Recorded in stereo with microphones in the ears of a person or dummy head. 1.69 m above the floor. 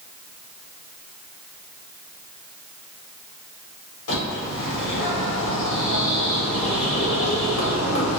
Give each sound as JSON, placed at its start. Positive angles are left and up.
{"t": 4.1, "sound": "a bird", "side_deg": 75, "distance_m": 1.4}